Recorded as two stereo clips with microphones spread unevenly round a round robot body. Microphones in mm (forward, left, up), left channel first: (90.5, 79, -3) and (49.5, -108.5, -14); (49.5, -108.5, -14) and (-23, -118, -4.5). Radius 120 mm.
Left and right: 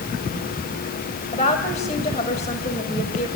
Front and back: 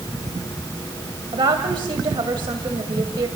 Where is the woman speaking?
145° left, 2 m.